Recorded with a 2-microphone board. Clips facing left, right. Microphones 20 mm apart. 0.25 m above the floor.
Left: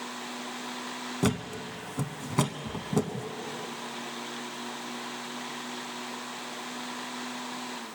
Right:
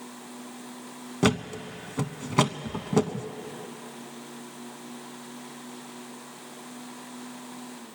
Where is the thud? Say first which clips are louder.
Right 5 dB; 30° right (ahead or behind), 0.6 m.